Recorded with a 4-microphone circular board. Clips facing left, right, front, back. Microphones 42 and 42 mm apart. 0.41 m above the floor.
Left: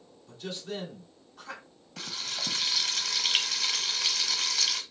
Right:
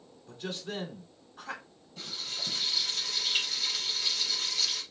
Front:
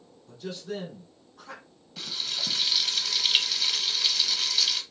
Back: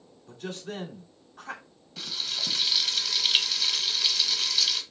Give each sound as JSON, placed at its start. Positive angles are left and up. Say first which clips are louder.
{"t": 0.3, "sound": "a man speaking", "louder": "even, front 1 dB", "azimuth_deg": -155, "distance_m": 2.0}
{"t": 2.0, "sound": "frying", "louder": "left 2 dB, even", "azimuth_deg": 85, "distance_m": 1.0}